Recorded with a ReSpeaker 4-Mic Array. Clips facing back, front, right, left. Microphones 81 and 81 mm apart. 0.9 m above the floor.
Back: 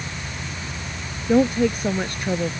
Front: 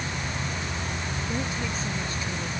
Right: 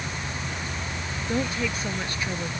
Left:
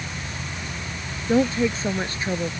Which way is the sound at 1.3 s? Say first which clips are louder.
Back 16 dB, left 8 dB; 150° left.